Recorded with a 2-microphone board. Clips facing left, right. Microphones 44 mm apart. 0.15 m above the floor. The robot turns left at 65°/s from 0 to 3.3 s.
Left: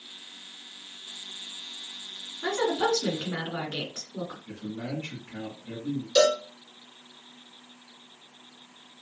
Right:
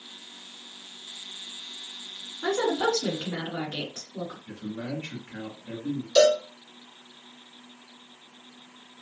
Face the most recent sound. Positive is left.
turn(degrees=5)  # may be behind; listen again after turning